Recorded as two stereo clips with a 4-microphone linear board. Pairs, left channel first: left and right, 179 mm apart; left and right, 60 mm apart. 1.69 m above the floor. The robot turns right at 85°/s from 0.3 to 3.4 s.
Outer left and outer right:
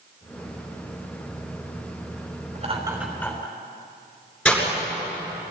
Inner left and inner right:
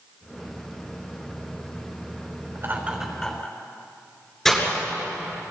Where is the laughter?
50° right (ahead or behind), 5.5 m; by 3.6 s 25° left (ahead or behind), 5.5 m.